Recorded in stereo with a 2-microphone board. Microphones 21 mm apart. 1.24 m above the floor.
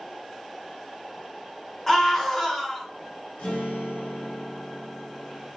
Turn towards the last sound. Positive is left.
turn(degrees=75)  # may be behind; listen again after turning